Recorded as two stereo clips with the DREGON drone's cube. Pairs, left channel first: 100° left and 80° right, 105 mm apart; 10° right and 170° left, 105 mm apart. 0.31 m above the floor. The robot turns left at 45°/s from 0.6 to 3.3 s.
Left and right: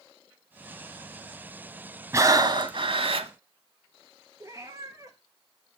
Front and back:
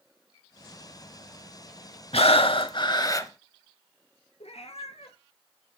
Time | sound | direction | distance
2.1 | breathing | 20° right | 0.8 m
4.4 | a cat meowing | 20° right | 1.3 m